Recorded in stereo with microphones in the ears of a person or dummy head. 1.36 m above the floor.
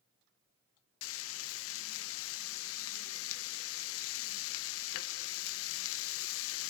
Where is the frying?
80° left, 1.2 m.